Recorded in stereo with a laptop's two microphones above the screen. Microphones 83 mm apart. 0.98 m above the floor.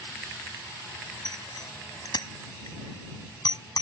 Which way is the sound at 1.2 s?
55° left (ahead or behind).